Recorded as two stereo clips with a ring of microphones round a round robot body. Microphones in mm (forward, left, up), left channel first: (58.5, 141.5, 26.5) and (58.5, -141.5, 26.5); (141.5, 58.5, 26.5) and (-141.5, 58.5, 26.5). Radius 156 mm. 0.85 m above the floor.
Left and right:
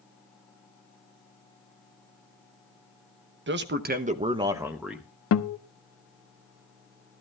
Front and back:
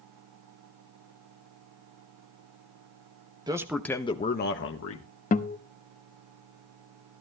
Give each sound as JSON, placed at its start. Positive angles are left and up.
{"t": 3.5, "sound": "a man speaking", "azimuth_deg": -110, "distance_m": 1.2}
{"t": 5.3, "sound": "a guitar", "azimuth_deg": 60, "distance_m": 0.9}